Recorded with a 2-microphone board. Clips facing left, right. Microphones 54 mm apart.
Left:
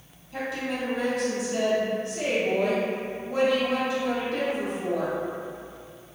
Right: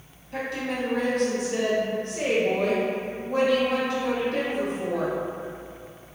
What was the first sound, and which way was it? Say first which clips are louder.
A woman speaking: right 1 dB; 50° right (ahead or behind).